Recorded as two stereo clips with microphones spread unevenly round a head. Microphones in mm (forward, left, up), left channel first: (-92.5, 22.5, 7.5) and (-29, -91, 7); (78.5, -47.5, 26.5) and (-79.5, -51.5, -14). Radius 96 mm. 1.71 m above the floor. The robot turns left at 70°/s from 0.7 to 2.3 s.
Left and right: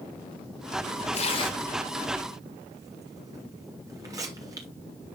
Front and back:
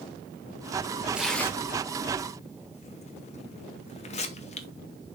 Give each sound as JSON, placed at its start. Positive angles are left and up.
{"t": 1.1, "sound": "tearing paper", "azimuth_deg": 90, "distance_m": 0.8}